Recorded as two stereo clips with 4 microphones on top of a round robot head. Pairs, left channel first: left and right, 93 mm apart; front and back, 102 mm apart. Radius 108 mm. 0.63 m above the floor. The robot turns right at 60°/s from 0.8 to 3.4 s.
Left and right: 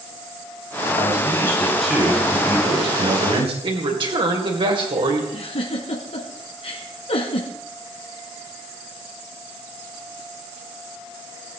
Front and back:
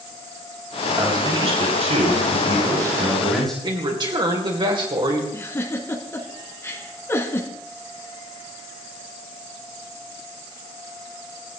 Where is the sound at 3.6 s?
130° right, 3 m.